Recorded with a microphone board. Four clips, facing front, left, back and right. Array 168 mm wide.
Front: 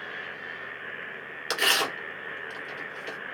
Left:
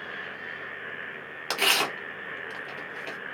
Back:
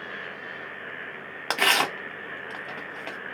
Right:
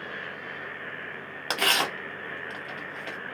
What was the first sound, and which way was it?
Tearing paper, 170° right.